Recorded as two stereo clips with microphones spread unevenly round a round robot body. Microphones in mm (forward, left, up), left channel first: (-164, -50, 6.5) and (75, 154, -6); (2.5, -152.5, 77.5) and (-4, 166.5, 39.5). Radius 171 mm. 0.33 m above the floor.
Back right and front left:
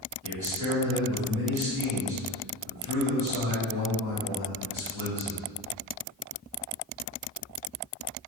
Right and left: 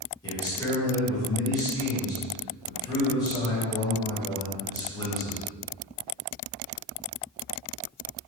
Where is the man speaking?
10° right, 1.7 m.